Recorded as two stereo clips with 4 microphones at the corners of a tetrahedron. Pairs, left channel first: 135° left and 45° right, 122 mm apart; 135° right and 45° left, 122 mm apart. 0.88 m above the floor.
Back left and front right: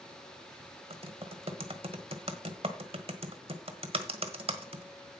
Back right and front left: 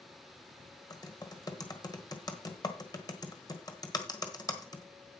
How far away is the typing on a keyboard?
About 1.3 m.